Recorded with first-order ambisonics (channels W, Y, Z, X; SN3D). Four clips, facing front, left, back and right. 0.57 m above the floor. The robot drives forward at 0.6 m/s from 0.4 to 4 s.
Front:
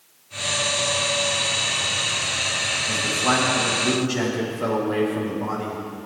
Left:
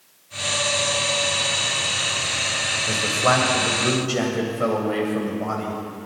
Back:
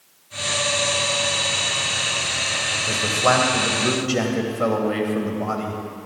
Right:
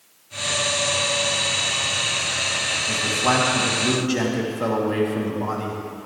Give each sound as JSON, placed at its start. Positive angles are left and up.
{"t": 2.9, "sound": "a man speaking", "azimuth_deg": 145, "distance_m": 2.5}